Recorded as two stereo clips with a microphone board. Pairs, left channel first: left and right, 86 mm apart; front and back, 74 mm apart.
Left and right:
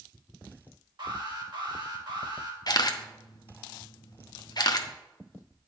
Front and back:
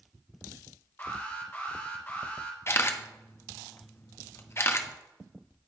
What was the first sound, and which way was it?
An alarm, 60° right.